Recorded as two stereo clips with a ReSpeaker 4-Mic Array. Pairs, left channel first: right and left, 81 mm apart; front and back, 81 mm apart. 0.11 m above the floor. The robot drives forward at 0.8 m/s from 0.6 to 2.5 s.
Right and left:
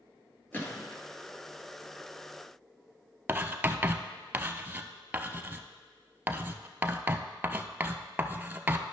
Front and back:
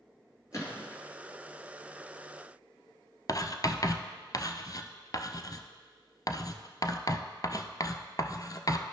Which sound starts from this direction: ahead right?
A gunshot, at 0.5 s.